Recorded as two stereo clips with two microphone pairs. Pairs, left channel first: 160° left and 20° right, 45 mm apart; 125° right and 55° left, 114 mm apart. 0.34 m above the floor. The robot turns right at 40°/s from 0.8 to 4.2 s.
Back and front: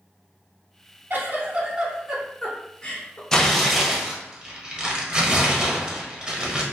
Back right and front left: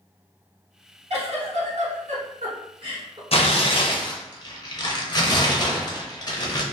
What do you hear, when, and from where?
1.1 s a giggle: 20° left, 0.6 m; by 3.2 s 105° left, 0.6 m
3.3 s tearing paper: 120° right, 0.5 m; by 6.6 s 85° right, 0.5 m